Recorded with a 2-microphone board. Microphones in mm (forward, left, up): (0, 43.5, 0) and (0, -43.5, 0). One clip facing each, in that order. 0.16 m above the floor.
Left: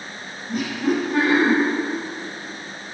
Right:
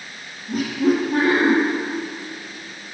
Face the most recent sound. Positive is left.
turn(degrees=-50)  # may be behind; listen again after turning